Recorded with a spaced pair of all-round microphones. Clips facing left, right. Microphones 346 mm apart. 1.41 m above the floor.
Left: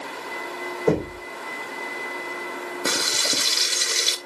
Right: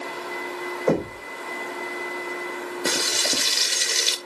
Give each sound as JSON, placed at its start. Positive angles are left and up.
{"t": 0.9, "sound": "knocking", "side_deg": 45, "distance_m": 4.5}
{"t": 2.9, "sound": "frying", "side_deg": 5, "distance_m": 0.9}